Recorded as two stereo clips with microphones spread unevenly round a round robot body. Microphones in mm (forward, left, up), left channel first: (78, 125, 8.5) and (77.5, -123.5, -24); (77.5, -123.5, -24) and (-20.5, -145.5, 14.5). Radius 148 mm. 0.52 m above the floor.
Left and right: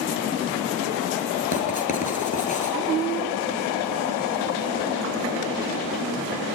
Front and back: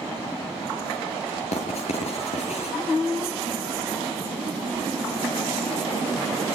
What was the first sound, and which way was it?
Writing, 30° left.